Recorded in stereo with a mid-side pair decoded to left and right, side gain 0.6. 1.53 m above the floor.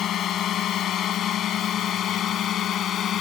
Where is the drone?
50° left.